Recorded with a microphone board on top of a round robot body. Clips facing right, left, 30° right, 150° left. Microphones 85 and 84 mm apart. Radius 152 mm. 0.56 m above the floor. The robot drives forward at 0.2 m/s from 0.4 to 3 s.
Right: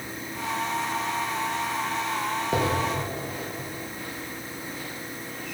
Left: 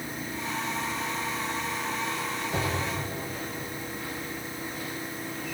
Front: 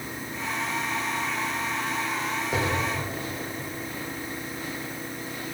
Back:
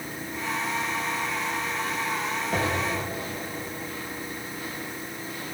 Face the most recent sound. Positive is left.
turn(degrees=-120)